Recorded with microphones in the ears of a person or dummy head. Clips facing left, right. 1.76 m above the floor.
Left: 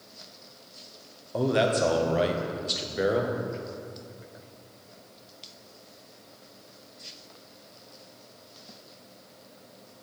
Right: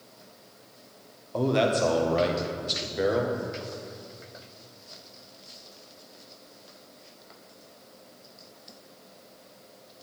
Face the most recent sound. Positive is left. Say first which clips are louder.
# even
turn(degrees=5)  # may be behind; listen again after turning